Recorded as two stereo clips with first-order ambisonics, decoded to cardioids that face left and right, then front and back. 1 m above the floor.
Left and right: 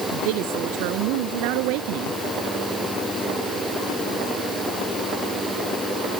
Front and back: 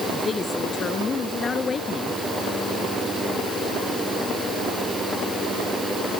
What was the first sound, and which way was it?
A woman speaking, 75° right.